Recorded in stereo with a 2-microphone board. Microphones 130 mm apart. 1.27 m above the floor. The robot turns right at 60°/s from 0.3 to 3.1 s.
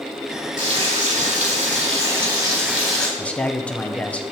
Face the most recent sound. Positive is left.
turn(degrees=10)  # may be behind; listen again after turning